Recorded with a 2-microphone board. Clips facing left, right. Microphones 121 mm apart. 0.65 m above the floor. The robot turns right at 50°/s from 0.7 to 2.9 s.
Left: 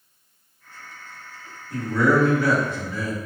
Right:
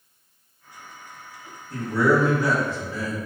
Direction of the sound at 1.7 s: 165° left.